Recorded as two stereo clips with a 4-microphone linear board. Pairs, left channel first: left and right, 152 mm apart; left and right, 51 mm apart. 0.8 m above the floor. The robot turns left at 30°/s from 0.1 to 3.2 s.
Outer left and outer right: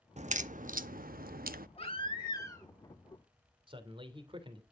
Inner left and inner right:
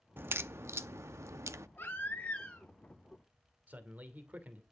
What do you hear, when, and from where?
0.2 s a crack: 50° right (ahead or behind), 0.8 m; by 1.7 s 75° right (ahead or behind), 0.8 m
1.8 s a baby crying: 40° left (ahead or behind), 7 m; by 2.7 s 15° left (ahead or behind), 7 m
3.7 s a man speaking: 35° right (ahead or behind), 2.5 m